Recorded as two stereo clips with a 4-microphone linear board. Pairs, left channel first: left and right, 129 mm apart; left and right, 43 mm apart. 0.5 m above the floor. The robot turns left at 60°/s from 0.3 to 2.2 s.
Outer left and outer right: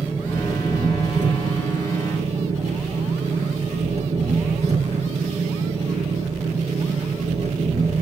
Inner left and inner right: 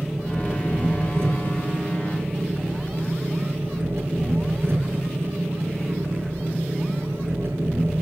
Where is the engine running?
10° right, 6 m; by 8.0 s 125° right, 6 m.